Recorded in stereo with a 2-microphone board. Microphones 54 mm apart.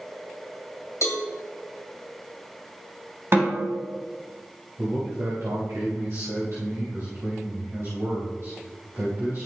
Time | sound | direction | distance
1.0 | a cowbell | 65° left (ahead or behind) | 1.6 m
3.3 | a snare drum | 50° right (ahead or behind) | 3 m
4.8 | a man speaking | 65° right (ahead or behind) | 3 m